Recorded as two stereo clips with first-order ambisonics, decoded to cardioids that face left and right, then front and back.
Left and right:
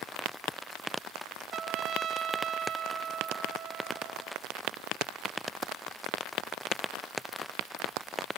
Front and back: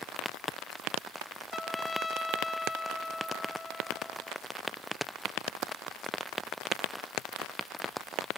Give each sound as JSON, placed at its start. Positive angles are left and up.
{"t": 1.5, "sound": "a trumpet", "azimuth_deg": -70, "distance_m": 1.0}